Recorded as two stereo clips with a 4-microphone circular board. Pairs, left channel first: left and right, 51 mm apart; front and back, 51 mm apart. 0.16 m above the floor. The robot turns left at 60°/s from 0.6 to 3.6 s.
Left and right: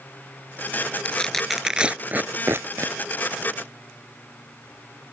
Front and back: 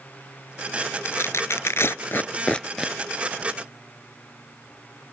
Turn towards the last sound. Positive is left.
turn(degrees=-130)